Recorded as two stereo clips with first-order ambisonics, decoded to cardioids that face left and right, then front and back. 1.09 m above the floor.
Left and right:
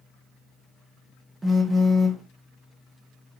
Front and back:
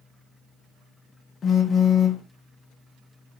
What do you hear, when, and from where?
1.4 s a phone buzzing: 25° right, 0.5 m